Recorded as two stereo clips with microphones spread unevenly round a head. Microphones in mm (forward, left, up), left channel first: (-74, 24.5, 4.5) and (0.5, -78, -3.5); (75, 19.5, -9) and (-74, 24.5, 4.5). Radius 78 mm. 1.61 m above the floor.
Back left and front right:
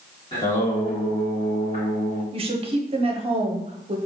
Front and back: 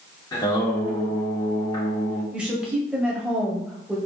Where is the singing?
65° left, 1.7 m.